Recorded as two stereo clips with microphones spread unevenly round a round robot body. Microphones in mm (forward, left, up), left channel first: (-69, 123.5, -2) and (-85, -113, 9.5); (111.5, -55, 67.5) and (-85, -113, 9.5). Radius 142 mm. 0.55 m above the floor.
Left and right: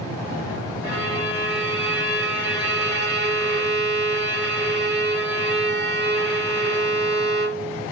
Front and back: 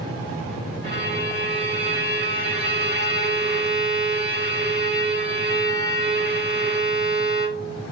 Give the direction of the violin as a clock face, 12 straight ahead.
4 o'clock.